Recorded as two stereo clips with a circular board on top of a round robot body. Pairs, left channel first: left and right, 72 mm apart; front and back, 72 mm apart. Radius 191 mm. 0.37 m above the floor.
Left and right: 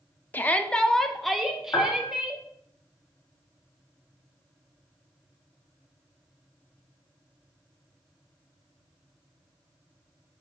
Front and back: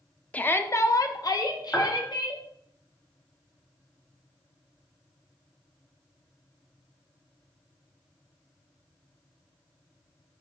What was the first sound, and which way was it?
A shout, 50° left.